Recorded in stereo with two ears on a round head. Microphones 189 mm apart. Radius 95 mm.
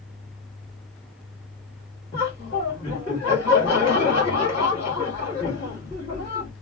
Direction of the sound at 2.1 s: 20° left (ahead or behind).